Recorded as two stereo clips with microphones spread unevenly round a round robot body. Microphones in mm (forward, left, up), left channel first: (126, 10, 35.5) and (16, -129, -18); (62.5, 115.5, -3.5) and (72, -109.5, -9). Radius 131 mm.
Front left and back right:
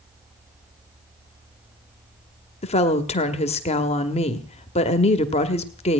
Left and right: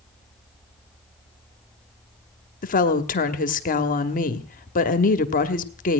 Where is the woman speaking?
115° left, 1.2 m.